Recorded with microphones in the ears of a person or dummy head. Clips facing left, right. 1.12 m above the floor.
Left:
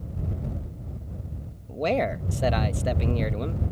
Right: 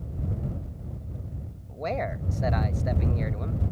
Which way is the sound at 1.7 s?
40° left (ahead or behind).